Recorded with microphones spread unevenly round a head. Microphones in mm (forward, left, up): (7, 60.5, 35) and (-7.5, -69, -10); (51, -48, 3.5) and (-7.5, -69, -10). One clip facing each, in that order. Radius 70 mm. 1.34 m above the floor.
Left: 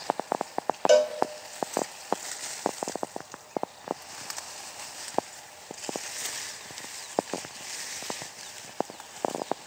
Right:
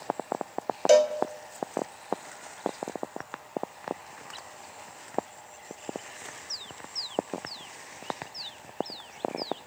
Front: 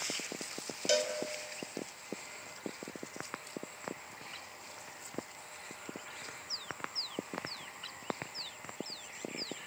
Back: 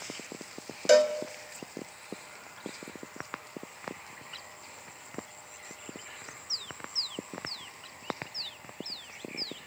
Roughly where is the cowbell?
Behind left.